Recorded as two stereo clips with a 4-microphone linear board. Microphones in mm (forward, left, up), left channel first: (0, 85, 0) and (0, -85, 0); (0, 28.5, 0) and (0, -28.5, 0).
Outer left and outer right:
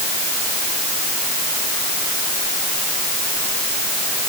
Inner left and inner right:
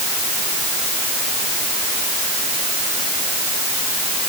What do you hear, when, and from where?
Only background noise.